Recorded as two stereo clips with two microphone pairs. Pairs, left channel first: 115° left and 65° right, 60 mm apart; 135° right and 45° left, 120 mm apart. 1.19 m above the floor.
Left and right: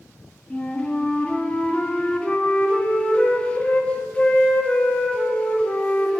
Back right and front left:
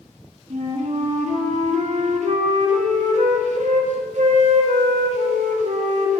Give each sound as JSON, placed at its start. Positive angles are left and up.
{"t": 0.5, "sound": "a flute", "azimuth_deg": 45, "distance_m": 2.0}